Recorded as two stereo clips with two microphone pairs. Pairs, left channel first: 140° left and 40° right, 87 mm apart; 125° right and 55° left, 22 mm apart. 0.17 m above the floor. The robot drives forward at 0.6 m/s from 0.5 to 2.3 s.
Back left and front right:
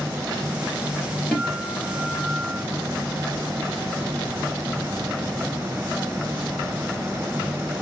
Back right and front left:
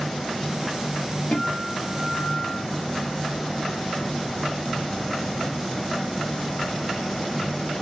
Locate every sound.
1.3 s a guitar: 140° right, 3 m; by 2.6 s 145° right, 3.5 m